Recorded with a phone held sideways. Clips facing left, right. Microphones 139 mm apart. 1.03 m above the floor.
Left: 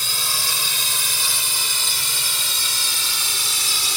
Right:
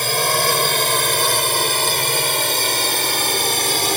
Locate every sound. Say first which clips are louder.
0.0 s a drone: right 13 dB; 65° right (ahead or behind); by 4.0 s 60° right (ahead or behind)